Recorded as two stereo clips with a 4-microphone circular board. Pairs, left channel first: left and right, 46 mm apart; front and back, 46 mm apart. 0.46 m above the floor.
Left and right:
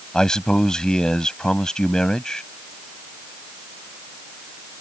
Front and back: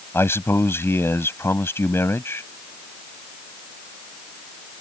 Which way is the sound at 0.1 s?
15° left.